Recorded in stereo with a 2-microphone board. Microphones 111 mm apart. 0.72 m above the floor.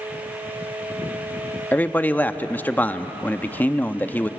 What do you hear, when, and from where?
1.7 s a man speaking: 15° left (ahead or behind), 0.7 m